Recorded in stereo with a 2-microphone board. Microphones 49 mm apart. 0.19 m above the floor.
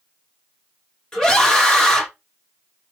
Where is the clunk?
No clunk in this recording.